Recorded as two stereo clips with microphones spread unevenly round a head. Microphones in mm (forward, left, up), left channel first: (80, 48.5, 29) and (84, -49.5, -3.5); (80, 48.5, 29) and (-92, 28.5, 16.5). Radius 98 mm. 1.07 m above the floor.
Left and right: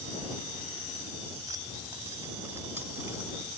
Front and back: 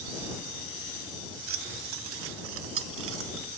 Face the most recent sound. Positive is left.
turn(degrees=-170)